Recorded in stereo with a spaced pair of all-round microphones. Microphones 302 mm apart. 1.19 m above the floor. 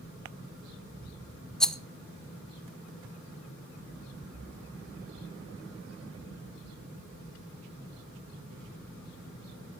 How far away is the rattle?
About 0.5 m.